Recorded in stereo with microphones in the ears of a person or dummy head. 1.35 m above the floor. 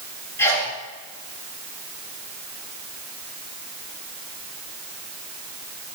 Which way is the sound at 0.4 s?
20° left (ahead or behind).